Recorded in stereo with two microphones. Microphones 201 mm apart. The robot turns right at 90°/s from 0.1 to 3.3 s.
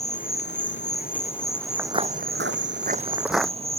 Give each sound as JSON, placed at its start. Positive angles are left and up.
{"t": 0.0, "sound": "an insect", "azimuth_deg": 40}
{"t": 1.8, "sound": "footsteps", "side_deg": -10}